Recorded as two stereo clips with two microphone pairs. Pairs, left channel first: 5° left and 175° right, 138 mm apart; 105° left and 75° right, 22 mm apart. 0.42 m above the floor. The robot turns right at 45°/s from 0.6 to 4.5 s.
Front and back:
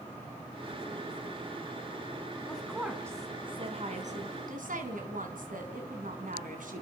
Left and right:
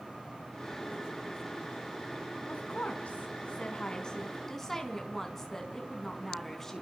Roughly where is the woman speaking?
Left.